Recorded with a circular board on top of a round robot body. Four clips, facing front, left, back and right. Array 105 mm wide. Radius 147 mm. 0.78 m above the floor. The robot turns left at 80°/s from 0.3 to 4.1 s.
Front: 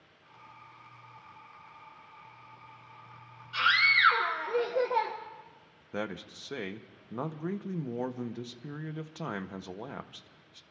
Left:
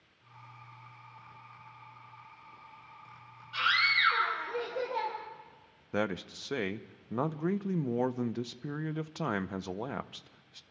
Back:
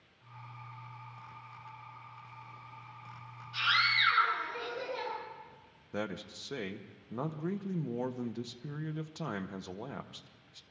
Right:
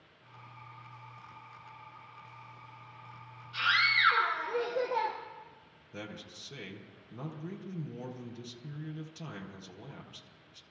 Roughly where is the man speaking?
Left.